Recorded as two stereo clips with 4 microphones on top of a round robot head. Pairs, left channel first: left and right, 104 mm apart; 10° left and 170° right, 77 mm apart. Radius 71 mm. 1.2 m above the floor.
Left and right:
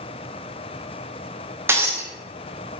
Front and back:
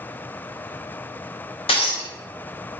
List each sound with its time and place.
1.7 s breaking glass: 25° right, 0.8 m